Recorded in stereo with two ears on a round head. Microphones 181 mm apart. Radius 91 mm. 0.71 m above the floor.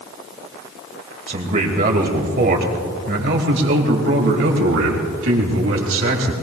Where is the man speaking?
40° right (ahead or behind), 3 m; by 6.3 s 85° right, 3.5 m.